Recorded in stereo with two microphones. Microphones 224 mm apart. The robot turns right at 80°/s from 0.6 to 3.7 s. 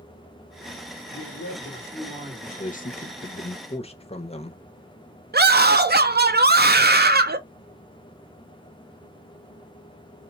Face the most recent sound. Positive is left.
turn(degrees=-45)  # may be behind; listen again after turning